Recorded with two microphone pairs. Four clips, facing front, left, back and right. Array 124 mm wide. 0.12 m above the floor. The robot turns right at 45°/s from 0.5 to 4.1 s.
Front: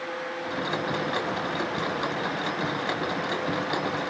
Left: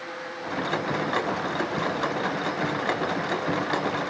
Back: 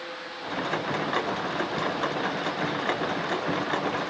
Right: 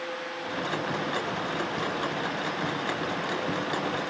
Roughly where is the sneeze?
I don't hear a sneeze.